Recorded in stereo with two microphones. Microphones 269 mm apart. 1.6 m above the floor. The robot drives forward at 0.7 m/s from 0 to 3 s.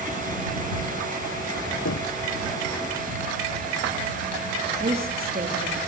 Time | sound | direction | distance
1.9 | knocking | 70° left (ahead or behind) | 1.0 m
4.8 | a woman speaking | 35° right (ahead or behind) | 3.5 m